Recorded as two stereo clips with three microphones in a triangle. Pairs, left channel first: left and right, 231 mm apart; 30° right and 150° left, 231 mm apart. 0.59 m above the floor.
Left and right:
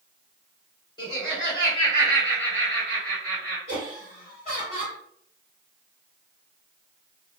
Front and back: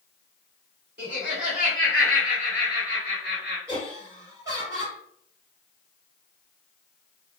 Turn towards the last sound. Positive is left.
turn(degrees=-140)